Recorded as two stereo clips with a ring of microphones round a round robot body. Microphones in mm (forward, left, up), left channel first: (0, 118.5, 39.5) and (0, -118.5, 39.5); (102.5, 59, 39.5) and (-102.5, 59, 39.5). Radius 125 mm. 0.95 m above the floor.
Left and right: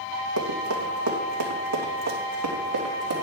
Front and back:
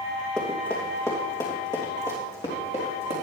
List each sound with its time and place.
0.4 s running footsteps: 85° right, 2.5 m; by 3.1 s 65° right, 4 m